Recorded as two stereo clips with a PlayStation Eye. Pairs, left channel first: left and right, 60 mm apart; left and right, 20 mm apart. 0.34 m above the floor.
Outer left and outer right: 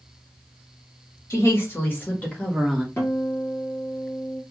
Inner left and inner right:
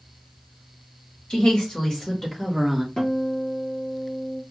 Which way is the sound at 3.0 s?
40° left (ahead or behind).